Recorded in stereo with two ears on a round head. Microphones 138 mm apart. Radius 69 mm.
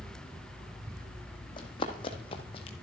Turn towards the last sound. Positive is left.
turn(degrees=40)  # may be behind; listen again after turning